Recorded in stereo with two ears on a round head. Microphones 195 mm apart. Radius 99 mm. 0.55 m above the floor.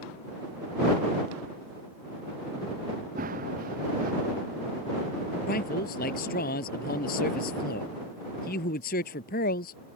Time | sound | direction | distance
3.1 | running footsteps | 40° right (ahead or behind) | ?
5.5 | a man speaking | 40° left (ahead or behind) | ?